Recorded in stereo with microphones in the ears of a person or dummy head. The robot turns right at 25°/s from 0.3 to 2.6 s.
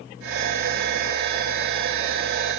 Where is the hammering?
I don't hear hammering.